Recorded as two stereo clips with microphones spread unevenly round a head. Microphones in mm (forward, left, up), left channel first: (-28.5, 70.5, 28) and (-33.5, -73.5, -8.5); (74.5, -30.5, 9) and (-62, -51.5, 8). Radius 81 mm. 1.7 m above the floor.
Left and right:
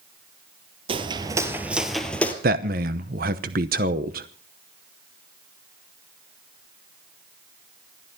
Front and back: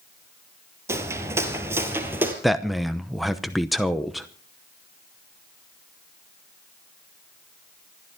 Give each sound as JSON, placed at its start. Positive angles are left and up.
{"t": 0.9, "sound": "footsteps", "azimuth_deg": -125, "distance_m": 1.8}
{"t": 2.4, "sound": "a man speaking", "azimuth_deg": -80, "distance_m": 0.8}